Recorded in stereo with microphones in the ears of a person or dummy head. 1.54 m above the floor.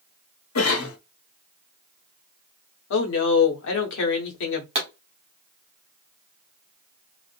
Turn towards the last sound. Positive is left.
turn(degrees=-30)  # may be behind; listen again after turning